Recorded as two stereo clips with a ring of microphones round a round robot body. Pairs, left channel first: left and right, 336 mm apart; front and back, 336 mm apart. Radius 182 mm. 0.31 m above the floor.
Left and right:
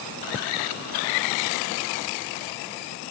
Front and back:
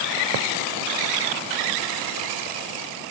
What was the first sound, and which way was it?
Only background noise.